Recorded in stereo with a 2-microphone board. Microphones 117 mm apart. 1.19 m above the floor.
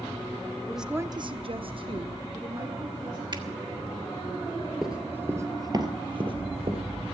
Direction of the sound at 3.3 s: 40° right (ahead or behind).